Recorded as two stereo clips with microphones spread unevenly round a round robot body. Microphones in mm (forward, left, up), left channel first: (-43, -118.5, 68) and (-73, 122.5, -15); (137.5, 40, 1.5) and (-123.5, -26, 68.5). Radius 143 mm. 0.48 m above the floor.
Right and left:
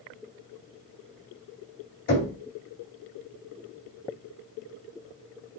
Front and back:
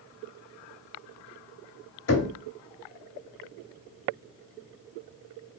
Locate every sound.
2.1 s knocking: 20° right, 2.5 m